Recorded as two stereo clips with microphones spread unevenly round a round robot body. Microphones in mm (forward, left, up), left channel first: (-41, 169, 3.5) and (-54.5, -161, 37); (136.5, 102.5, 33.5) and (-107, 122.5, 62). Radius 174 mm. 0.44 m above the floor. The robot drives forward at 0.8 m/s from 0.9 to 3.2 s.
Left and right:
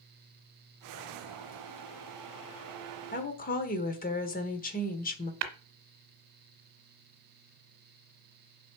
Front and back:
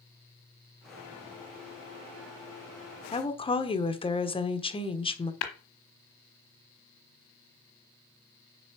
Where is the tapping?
45° right, 1.1 m.